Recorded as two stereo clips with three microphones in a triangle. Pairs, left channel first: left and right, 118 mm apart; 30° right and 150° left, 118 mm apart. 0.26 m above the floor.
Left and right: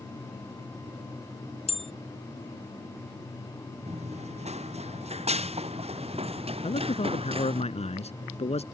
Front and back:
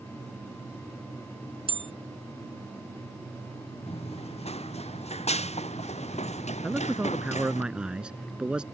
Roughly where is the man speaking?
Left.